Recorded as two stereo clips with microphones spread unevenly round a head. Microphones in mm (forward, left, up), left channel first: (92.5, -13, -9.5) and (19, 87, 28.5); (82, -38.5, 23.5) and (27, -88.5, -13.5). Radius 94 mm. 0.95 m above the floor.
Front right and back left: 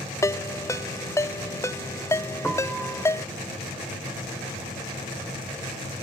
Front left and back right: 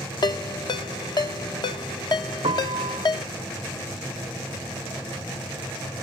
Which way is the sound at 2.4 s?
140° right.